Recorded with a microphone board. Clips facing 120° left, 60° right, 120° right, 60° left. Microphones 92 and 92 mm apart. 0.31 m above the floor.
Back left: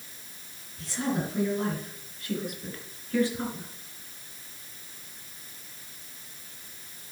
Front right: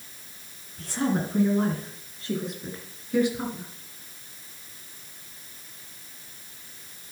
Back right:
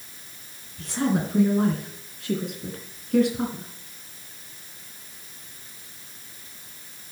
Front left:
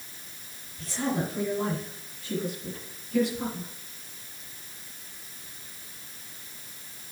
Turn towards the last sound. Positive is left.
turn(degrees=-140)